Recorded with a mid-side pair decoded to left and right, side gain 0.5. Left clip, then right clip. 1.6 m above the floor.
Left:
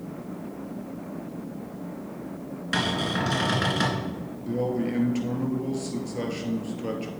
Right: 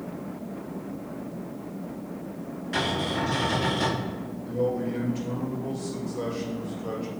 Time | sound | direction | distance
2.7 | a cupboard door | 70° left | 2.5 m
4.5 | a man speaking | 65° left | 2.5 m